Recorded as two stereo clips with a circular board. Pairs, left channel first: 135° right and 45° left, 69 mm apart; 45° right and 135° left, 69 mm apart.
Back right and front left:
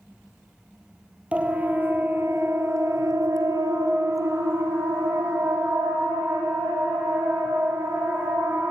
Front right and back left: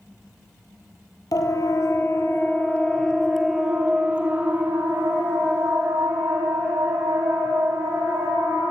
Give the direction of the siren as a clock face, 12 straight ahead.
1 o'clock.